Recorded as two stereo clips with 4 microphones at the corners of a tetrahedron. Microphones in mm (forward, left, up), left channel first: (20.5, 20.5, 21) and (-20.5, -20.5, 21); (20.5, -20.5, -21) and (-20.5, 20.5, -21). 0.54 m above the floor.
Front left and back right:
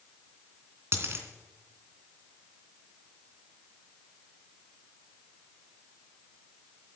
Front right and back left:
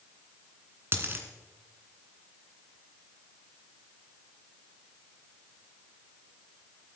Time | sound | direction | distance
0.9 | a dropped coin | 175° right | 2.5 m